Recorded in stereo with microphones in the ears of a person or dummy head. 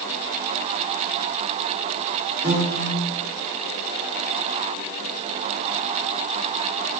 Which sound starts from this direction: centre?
A piano, at 2.4 s.